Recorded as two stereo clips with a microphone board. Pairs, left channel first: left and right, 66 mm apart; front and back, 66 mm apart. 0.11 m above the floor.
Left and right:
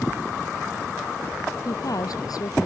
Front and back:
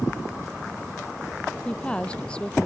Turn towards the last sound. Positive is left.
turn(degrees=75)